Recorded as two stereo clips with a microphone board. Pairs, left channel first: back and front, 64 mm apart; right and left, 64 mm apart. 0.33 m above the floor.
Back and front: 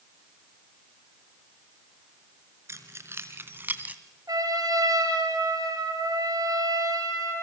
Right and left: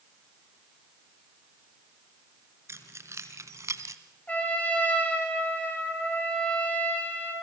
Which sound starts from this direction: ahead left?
Keys jangling, at 2.7 s.